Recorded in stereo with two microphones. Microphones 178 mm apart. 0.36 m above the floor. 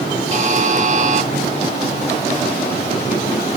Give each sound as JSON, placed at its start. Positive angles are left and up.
{"t": 0.3, "sound": "a buzzer", "side_deg": -40, "distance_m": 1.0}